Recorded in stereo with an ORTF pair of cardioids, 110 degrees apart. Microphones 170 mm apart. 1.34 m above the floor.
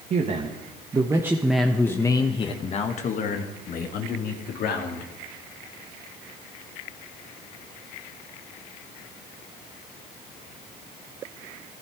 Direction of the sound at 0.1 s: 45° right.